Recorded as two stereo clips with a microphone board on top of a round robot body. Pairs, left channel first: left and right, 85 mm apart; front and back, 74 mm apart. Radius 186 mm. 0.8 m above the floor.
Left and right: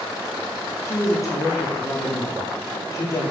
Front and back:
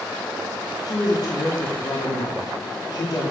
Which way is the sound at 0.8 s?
35° left.